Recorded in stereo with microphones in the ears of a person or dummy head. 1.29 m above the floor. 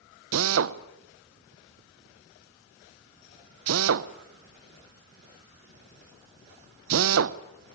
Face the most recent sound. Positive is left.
turn(degrees=-75)  # may be behind; listen again after turning